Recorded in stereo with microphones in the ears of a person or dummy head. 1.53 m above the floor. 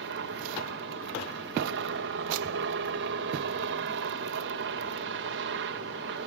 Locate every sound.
0.0 s a helicopter: 60° right (ahead or behind)